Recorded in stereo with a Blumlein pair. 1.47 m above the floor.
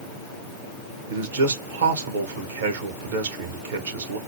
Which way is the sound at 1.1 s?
65° right.